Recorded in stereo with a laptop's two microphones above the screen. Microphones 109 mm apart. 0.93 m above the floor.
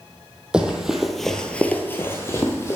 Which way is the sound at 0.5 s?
10° right (ahead or behind).